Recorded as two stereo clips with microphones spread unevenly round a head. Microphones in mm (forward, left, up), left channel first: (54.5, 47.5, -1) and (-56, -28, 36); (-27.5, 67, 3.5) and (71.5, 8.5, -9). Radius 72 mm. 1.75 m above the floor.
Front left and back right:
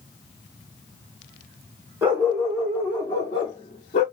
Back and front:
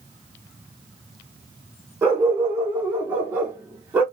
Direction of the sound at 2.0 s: 100° right.